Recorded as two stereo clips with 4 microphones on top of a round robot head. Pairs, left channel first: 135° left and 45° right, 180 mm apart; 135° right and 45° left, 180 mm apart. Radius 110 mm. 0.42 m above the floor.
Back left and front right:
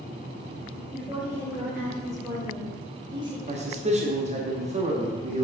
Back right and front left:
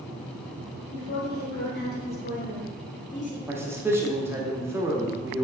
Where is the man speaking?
25° right, 1.3 m.